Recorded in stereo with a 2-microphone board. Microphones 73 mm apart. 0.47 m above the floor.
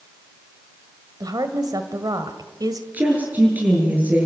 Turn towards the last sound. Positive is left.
turn(degrees=-25)  # may be behind; listen again after turning